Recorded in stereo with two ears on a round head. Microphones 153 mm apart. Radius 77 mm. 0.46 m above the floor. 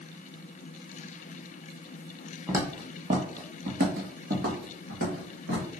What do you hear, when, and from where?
2.5 s footsteps: 15° right (ahead or behind), 1.0 m; by 5.7 s 80° right, 3 m